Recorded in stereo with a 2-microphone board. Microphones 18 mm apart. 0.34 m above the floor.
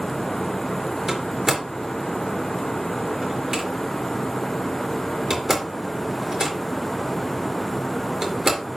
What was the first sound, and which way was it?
A door slam, 20° right (ahead or behind).